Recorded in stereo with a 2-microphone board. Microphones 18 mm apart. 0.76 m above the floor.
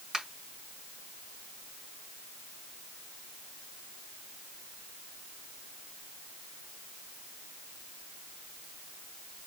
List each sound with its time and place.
0.1 s a finger snap: 35° right (ahead or behind), 5.5 m